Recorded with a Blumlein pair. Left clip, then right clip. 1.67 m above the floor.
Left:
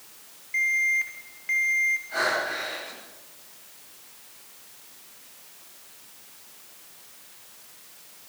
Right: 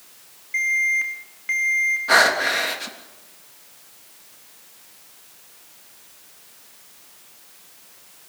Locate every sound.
0.5 s an alarm: 10° right, 4 m
2.1 s breathing: 45° right, 3.5 m